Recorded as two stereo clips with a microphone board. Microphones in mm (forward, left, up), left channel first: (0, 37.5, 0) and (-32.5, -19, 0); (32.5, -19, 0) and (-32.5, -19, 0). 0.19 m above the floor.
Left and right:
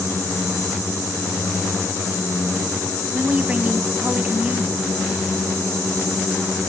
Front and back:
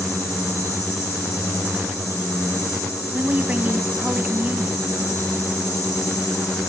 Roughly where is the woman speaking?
Behind.